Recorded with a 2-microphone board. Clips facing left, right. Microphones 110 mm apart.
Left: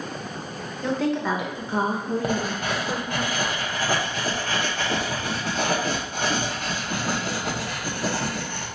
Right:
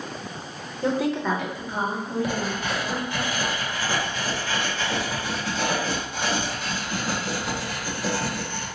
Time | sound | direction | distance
0.8 | a woman speaking | 20° right (ahead or behind) | 0.6 m
2.2 | writing | 50° left (ahead or behind) | 0.7 m